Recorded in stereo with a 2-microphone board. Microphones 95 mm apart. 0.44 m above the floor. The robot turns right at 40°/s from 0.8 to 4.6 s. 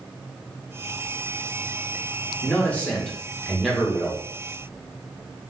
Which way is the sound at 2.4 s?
15° left (ahead or behind).